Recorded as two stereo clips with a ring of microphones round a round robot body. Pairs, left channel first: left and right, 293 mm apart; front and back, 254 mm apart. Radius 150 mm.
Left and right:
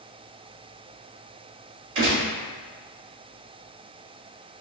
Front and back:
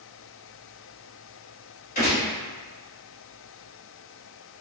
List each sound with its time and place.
1.9 s a gunshot: 65° right, 1.9 m